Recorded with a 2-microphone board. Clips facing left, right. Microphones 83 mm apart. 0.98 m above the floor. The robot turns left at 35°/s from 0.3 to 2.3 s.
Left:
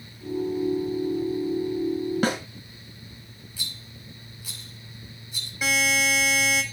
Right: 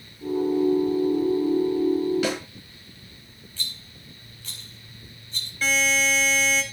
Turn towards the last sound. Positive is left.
turn(degrees=10)  # may be behind; listen again after turning